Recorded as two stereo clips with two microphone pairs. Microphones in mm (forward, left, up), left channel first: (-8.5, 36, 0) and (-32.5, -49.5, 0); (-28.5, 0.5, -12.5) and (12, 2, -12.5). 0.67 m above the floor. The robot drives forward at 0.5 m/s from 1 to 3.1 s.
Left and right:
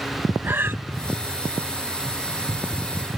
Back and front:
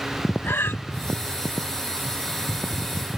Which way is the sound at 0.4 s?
170° right.